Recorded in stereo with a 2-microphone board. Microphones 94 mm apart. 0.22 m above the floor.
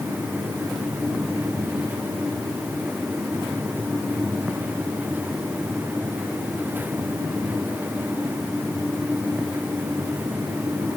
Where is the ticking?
I don't hear ticking.